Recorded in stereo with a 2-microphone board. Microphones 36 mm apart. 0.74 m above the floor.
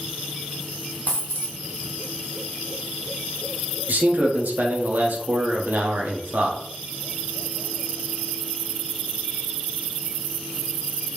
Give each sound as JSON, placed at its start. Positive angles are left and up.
{"t": 1.1, "sound": "a dropped coin", "side_deg": 55, "distance_m": 0.8}
{"t": 3.9, "sound": "a man speaking", "side_deg": -55, "distance_m": 0.9}